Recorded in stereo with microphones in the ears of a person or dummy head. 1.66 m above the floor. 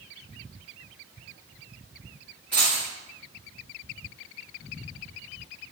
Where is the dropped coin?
5° left (ahead or behind), 1.3 m.